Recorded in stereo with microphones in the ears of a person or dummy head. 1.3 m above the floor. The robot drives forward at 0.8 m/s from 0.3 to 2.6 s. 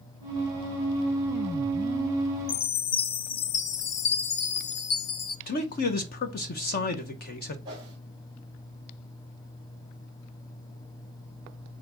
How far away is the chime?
About 0.5 m.